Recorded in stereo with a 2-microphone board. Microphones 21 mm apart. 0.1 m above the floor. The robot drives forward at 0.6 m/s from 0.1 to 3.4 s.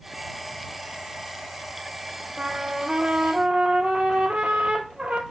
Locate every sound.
2.4 s a trumpet: 55° right (ahead or behind), 2 m; by 5.2 s 60° right (ahead or behind), 2.0 m